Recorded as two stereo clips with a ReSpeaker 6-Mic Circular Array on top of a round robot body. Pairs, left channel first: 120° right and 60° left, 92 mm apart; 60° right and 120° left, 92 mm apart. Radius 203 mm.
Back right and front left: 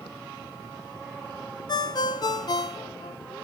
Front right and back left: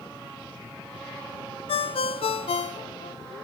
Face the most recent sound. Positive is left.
turn(degrees=-75)